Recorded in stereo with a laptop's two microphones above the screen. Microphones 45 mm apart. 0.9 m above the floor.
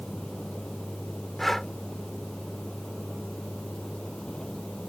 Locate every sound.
0.0 s a vehicle: 15° left (ahead or behind)
1.4 s breathing: 5° left (ahead or behind)